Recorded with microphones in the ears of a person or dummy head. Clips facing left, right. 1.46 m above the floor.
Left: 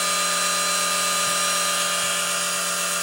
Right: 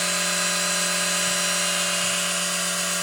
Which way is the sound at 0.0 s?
20° left (ahead or behind).